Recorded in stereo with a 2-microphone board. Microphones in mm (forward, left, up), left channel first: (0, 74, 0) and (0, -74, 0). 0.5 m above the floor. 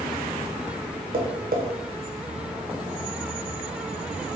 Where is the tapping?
65° right (ahead or behind), 0.5 m.